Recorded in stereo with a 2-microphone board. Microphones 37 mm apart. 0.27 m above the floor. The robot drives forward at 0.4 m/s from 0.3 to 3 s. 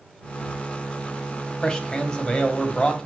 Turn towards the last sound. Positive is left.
turn(degrees=25)  # may be behind; listen again after turning